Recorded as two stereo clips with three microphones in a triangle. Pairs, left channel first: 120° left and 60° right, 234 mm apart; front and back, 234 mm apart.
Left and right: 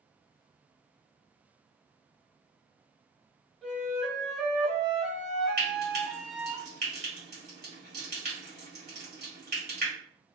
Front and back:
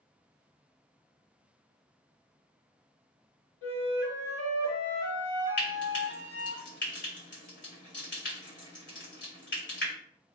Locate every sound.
3.6 s a flute: 30° left, 0.9 m
5.6 s frying: 25° right, 1.9 m